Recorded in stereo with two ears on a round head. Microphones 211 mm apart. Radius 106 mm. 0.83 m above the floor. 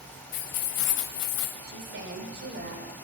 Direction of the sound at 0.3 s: 75° left (ahead or behind).